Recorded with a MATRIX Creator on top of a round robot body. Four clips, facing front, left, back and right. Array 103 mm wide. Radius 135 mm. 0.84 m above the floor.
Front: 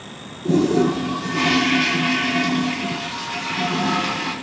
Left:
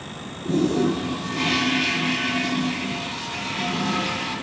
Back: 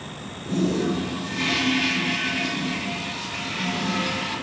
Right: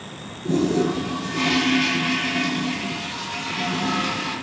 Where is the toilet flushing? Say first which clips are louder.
Even, front 7 dB; 10° right, 0.7 m.